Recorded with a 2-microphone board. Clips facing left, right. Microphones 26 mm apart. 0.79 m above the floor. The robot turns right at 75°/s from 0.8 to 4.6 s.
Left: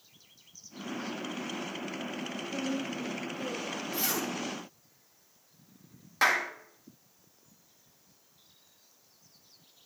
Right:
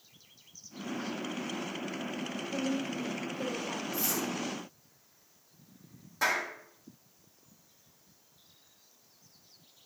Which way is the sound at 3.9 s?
85° left.